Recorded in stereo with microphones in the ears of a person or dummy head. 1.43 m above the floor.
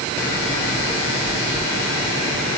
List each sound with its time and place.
Only background noise.